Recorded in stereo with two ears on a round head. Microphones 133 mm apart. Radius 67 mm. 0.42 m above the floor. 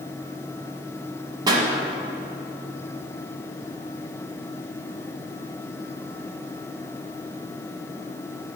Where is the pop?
30° right (ahead or behind), 1.3 m.